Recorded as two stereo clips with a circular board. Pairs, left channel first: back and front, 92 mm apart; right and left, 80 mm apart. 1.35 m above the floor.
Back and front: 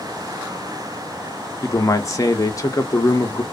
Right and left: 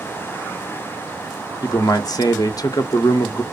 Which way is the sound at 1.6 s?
130° right.